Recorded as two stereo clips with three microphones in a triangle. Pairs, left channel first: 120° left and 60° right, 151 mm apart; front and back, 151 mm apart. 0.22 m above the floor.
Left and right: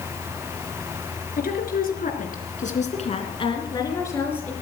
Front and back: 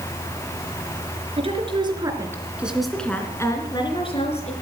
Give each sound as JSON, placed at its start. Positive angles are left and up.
{"t": 1.4, "sound": "a woman speaking", "azimuth_deg": 130, "distance_m": 3.5}